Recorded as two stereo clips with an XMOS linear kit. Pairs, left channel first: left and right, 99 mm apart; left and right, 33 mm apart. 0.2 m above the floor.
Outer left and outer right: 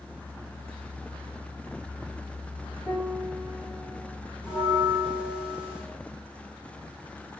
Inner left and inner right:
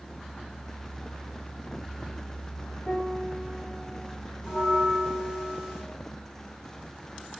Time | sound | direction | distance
2.9 | a piano | 5° right (ahead or behind) | 4.5 m
4.4 | a bell | 10° right (ahead or behind) | 8.5 m